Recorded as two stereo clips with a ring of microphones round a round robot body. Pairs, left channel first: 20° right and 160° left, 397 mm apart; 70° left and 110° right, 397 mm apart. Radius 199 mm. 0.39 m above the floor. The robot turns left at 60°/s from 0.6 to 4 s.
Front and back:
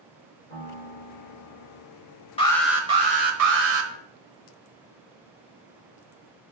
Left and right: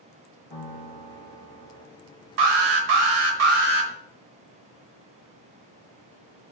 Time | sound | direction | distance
0.5 | a piano | 15° right | 3.5 m
2.4 | an alarm | 95° right | 1.3 m